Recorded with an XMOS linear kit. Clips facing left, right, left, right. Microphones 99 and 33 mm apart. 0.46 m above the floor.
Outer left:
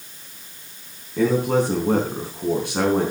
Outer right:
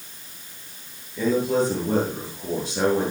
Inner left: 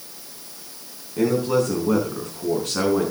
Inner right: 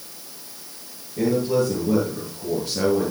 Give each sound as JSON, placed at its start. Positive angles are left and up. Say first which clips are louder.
{"t": 1.2, "sound": "a man speaking", "louder": "outer left 2 dB, inner left 1 dB", "side_deg": 65, "distance_m": 4.5}